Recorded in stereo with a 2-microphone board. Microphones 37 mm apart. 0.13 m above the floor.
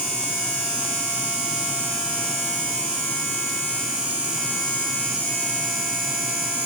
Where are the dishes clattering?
I don't hear dishes clattering.